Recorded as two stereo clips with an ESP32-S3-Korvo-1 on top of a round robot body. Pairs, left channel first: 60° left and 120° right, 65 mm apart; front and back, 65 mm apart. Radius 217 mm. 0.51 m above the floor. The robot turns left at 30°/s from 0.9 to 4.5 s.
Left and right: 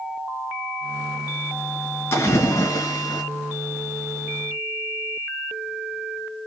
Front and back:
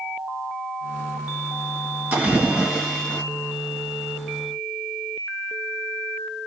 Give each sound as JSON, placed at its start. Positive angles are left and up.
{"t": 2.1, "sound": "a splash", "azimuth_deg": 110, "distance_m": 2.5}